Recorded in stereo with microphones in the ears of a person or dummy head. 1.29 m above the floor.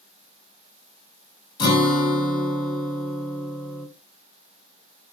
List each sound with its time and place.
1.6 s a guitar: 25° left (ahead or behind), 2 m